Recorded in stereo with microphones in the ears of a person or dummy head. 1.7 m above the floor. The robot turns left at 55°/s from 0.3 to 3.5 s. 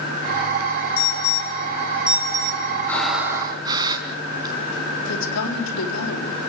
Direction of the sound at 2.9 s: 10° left.